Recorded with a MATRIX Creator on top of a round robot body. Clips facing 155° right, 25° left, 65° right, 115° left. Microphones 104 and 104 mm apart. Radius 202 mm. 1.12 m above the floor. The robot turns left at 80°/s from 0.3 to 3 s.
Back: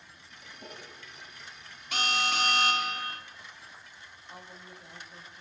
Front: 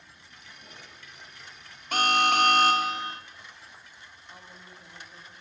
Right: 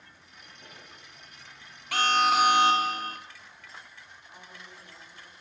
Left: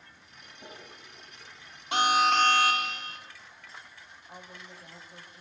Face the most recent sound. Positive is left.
turn(degrees=125)